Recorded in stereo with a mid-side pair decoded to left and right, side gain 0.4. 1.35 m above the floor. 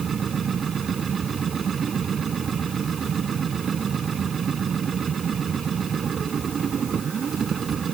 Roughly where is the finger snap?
I don't hear a finger snap.